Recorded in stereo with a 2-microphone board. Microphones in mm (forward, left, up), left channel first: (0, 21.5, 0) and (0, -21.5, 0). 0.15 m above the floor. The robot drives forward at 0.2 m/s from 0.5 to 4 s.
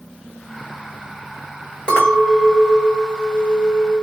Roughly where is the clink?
Left.